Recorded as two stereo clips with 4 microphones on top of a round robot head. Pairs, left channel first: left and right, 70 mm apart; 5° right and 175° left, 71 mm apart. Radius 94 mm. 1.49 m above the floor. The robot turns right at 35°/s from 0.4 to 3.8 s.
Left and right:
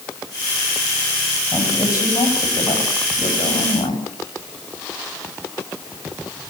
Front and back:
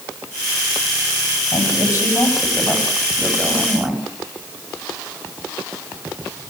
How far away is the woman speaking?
About 9.5 m.